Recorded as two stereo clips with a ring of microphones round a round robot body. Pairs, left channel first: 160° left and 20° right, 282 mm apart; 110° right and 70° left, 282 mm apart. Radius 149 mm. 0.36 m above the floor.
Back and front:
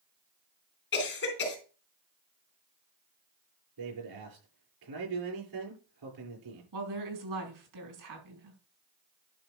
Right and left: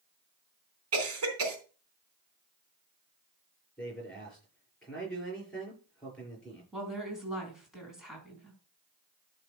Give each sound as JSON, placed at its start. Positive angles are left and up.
{"t": 0.9, "sound": "a cough", "azimuth_deg": 105, "distance_m": 3.5}
{"t": 3.8, "sound": "a man speaking", "azimuth_deg": -25, "distance_m": 6.5}
{"t": 6.7, "sound": "a woman speaking", "azimuth_deg": -20, "distance_m": 4.5}